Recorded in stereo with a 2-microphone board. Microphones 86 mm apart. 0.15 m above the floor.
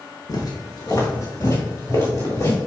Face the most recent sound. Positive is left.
turn(degrees=25)  # may be behind; listen again after turning